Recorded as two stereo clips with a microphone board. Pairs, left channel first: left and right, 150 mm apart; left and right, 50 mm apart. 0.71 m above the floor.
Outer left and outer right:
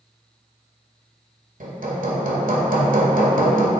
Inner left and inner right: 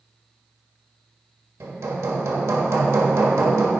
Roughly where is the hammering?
Right.